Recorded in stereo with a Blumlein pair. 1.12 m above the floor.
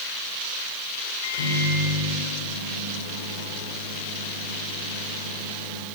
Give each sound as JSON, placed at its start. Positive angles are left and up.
{"t": 1.2, "sound": "a microwave", "azimuth_deg": 60, "distance_m": 4.0}